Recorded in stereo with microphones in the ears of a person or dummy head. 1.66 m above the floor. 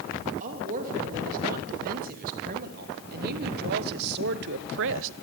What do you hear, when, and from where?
0.4 s a woman speaking: 45° right (ahead or behind), 3 m; by 5.1 s 70° right (ahead or behind), 0.8 m